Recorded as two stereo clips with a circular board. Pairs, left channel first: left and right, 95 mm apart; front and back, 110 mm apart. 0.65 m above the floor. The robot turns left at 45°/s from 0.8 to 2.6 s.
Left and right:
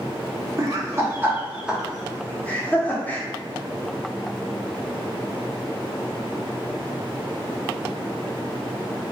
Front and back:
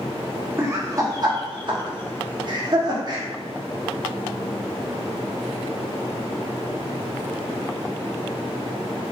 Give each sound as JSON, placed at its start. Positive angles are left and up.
{"t": 0.6, "sound": "laughter", "azimuth_deg": -130, "distance_m": 1.1}